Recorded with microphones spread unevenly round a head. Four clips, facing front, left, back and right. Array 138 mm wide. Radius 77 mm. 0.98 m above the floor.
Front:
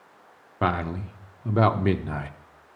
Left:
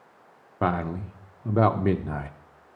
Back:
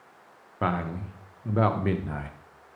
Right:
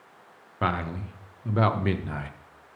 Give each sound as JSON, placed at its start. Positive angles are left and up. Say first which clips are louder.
{"t": 0.6, "sound": "a man speaking", "louder": "left 2 dB, front 3 dB", "azimuth_deg": 70, "distance_m": 0.5}